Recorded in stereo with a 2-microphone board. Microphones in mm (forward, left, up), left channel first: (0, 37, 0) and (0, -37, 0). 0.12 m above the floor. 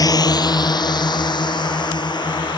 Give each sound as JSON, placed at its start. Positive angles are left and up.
{"t": 0.0, "sound": "a drone", "side_deg": 55}